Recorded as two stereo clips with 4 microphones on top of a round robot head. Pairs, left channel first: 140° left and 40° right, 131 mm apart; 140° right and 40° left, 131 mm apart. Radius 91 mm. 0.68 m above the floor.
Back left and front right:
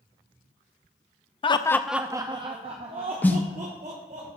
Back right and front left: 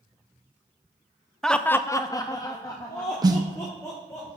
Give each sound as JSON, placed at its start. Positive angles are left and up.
{"t": 1.4, "sound": "laughter", "azimuth_deg": 135, "distance_m": 0.6}
{"t": 3.2, "sound": "a snare drum", "azimuth_deg": 75, "distance_m": 0.9}